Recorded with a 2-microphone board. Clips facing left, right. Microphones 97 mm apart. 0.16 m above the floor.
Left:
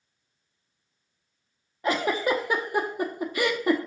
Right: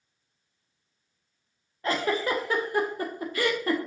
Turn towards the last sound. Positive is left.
turn(degrees=15)  # may be behind; listen again after turning